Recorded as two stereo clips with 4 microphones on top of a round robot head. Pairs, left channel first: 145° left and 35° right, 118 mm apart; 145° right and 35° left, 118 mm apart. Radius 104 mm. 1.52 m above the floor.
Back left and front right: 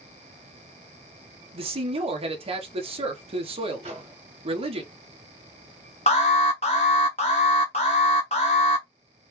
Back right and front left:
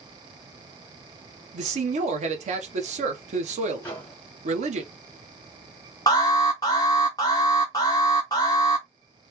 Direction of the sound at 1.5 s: 5° left.